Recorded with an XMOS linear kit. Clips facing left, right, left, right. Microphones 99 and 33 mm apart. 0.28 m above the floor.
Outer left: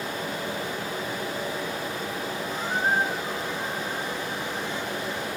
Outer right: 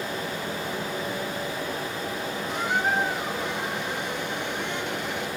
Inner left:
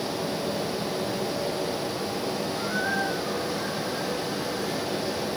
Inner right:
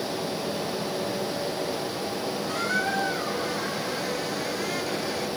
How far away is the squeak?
About 2.5 m.